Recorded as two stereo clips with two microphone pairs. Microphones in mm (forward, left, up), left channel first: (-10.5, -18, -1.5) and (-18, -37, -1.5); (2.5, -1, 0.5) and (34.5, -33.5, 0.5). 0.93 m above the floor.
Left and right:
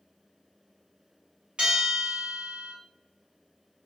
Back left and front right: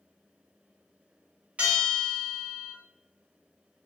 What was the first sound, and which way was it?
A bell, 95° right.